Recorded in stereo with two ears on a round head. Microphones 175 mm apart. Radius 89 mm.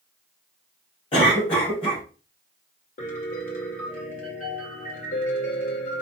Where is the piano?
45° left (ahead or behind), 1.9 m.